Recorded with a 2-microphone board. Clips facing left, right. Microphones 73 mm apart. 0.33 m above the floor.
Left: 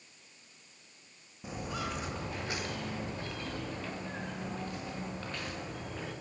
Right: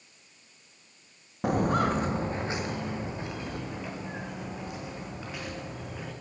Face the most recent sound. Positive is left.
turn(degrees=-5)  # may be behind; listen again after turning